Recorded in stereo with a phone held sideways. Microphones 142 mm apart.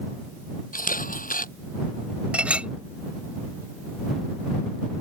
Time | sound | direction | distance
0.7 | a camera shutter | 80° left | ?
2.3 | a clink | 10° right (ahead or behind) | ?